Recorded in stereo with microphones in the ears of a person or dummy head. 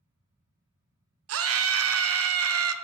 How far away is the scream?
About 0.5 m.